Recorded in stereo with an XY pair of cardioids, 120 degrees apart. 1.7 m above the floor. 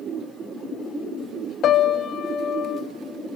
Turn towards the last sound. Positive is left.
turn(degrees=55)